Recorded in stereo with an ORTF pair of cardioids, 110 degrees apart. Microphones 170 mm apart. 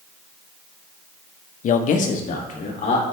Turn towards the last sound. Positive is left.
turn(degrees=50)